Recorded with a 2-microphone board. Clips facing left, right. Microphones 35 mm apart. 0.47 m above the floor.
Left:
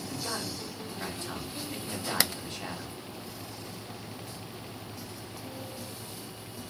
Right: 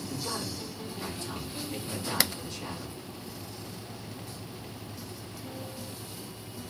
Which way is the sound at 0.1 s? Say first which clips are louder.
Even; 35° left (ahead or behind).